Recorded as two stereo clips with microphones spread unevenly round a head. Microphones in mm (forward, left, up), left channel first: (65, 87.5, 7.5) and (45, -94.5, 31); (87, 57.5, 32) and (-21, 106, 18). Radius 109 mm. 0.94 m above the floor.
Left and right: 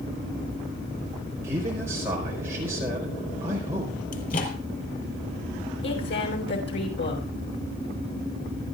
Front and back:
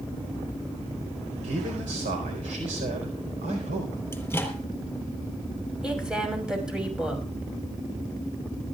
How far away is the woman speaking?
About 6.5 m.